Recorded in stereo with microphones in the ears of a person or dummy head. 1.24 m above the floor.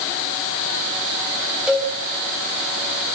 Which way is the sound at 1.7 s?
Centre (ahead or behind).